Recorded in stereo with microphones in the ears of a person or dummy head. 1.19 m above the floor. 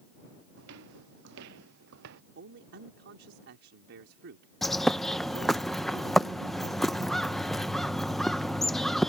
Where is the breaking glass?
I don't hear breaking glass.